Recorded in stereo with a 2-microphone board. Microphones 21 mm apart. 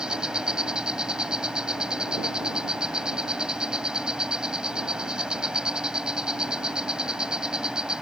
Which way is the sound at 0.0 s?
45° right (ahead or behind).